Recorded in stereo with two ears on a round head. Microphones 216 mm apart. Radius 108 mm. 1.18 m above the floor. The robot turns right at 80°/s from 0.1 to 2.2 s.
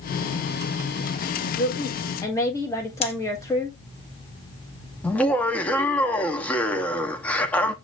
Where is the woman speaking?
115° left, 1.5 m; by 3.8 s 165° left, 1.5 m.